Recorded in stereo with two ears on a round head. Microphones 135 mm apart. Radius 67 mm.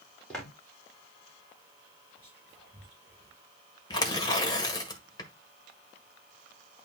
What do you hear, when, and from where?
0.3 s footsteps: 5° left (ahead or behind), 4.5 m
2.2 s whispering: 5° right (ahead or behind), 4.5 m
3.9 s tearing paper: 25° left (ahead or behind), 1.7 m